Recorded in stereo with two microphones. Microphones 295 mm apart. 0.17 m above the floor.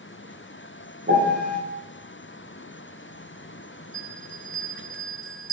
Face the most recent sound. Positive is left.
turn(degrees=55)  # may be behind; listen again after turning